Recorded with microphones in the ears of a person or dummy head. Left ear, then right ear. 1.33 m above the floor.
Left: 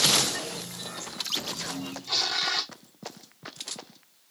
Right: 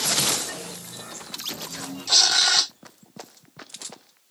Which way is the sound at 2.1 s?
35° right (ahead or behind).